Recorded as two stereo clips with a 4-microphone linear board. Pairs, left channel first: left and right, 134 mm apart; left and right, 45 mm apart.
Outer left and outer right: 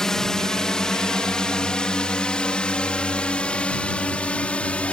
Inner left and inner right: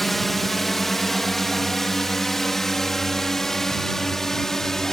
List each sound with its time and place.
0.0 s a drone: 5° left (ahead or behind); by 4.9 s 10° left (ahead or behind)